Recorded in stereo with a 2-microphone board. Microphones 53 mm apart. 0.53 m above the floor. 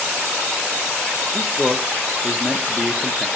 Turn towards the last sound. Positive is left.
turn(degrees=-10)  # may be behind; listen again after turning